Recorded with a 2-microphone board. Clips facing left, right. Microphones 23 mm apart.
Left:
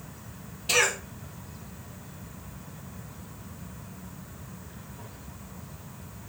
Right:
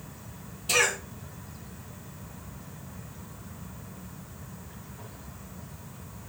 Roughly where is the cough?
Left.